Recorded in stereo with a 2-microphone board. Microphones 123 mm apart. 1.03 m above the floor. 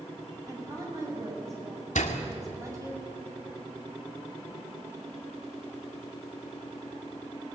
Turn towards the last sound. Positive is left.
turn(degrees=80)